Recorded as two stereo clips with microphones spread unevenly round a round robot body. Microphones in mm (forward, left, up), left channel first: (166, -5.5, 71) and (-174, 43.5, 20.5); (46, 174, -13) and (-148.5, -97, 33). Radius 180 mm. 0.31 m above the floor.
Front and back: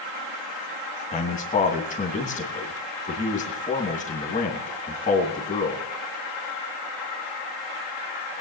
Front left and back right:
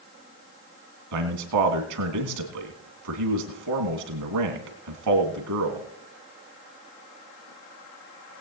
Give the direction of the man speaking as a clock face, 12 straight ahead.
3 o'clock.